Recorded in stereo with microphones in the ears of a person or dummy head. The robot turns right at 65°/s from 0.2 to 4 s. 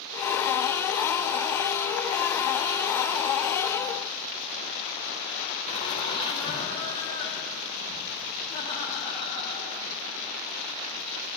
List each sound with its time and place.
5.7 s laughter: 30° left (ahead or behind), 1.4 m